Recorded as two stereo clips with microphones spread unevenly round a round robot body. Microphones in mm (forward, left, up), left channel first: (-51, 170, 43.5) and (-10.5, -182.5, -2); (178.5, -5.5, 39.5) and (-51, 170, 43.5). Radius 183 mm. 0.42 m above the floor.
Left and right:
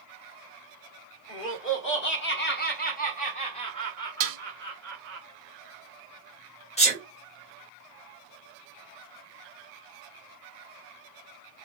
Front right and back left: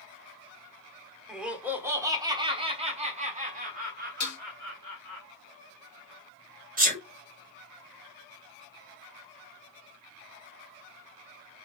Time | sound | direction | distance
1.3 | laughter | 55° left | 1.5 m
4.2 | dishes clattering | 80° right | 1.3 m
6.8 | a sneeze | 165° left | 1.4 m